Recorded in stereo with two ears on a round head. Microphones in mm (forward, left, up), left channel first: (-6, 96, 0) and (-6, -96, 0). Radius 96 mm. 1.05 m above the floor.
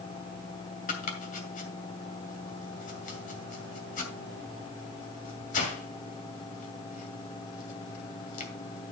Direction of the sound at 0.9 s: 40° left (ahead or behind).